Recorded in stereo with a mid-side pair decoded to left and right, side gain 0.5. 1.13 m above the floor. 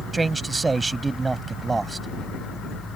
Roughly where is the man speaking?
Ahead.